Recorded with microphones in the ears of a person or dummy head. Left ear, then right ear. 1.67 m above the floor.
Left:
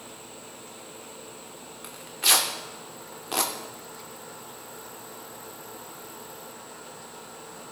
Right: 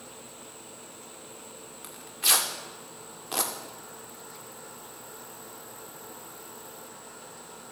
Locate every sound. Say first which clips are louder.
1.8 s tearing paper: left 3 dB; centre (ahead or behind), 0.7 m